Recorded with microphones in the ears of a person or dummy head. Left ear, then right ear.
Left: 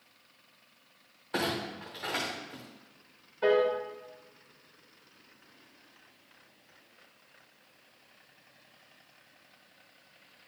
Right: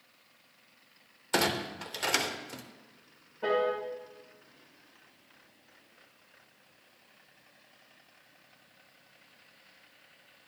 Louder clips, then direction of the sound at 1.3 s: Right 3 dB; 65° right (ahead or behind).